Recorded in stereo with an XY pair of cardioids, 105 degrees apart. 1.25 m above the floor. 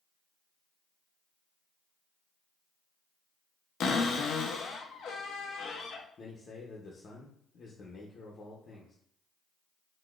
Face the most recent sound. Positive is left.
turn(degrees=45)